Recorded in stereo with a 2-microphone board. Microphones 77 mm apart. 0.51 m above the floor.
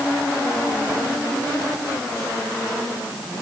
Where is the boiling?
No boiling in this recording.